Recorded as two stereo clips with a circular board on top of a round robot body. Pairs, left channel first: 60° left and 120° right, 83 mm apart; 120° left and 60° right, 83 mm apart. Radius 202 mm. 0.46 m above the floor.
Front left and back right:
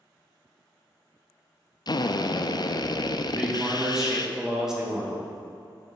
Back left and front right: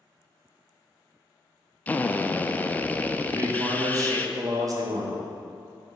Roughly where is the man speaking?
Ahead right.